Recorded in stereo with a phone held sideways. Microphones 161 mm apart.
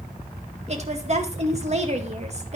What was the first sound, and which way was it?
A woman speaking, 45° right (ahead or behind).